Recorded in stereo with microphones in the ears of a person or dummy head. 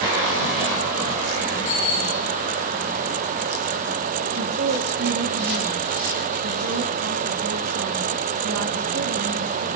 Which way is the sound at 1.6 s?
35° left (ahead or behind).